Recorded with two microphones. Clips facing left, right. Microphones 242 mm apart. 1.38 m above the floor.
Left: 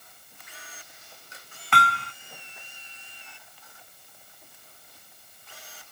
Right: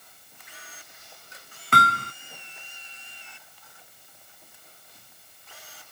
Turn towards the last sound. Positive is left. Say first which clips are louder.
# right 2 dB
turn(degrees=-45)  # may be behind; listen again after turning